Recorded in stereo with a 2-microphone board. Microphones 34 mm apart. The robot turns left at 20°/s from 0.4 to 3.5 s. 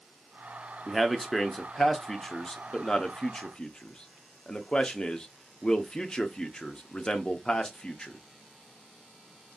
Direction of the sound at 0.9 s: Centre (ahead or behind).